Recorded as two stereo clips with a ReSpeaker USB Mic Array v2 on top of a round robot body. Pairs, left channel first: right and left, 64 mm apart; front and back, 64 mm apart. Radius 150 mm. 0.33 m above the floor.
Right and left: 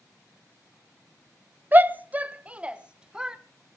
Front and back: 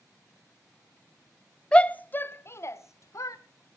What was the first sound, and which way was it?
A shout, 60° left.